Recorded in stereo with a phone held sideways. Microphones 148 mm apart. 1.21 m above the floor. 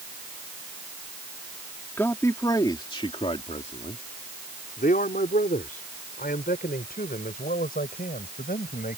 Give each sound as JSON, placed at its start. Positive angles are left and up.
{"t": 2.0, "sound": "a man speaking", "side_deg": 15}